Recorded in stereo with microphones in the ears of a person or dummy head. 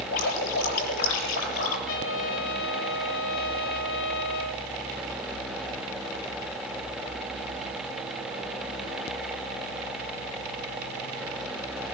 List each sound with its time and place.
0.1 s dripping: 70° left (ahead or behind), 7 m
1.9 s a trumpet: 70° left (ahead or behind), 2 m